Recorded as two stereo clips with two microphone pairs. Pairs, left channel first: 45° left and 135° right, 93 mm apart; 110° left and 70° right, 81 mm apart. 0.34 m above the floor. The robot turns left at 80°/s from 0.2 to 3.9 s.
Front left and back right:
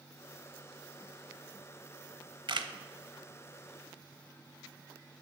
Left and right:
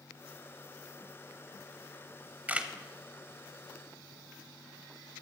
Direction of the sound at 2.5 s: 135° right.